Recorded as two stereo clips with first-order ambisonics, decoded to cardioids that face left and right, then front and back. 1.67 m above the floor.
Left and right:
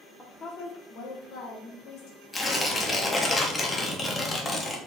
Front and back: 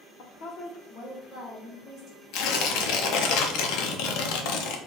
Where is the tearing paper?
15° left, 0.6 m.